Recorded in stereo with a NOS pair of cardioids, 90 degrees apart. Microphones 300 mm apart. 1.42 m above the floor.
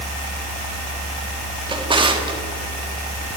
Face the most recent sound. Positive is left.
turn(degrees=-15)